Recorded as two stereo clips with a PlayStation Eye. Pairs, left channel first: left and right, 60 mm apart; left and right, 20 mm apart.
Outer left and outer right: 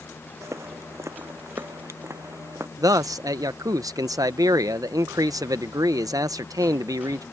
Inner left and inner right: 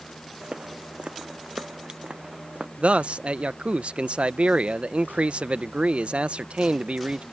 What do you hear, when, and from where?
0.4 s footsteps: 55° right (ahead or behind)
2.8 s a man speaking: 85° right